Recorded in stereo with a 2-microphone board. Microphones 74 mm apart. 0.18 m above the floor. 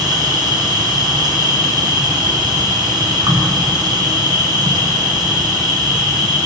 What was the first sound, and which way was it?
An insect, 75° right (ahead or behind).